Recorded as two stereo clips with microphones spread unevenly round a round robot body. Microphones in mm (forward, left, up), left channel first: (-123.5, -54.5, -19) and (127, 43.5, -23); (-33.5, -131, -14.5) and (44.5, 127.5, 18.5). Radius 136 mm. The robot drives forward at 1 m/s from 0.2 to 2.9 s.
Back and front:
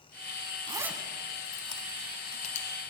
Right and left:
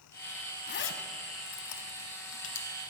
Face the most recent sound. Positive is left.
turn(degrees=-160)